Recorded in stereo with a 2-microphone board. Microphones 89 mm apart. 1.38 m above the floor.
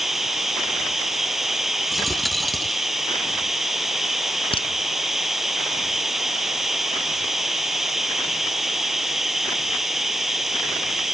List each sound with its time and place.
0.0 s running water: 5° right (ahead or behind)
1.9 s a dropped coin: centre (ahead or behind)
4.5 s a crack: 80° left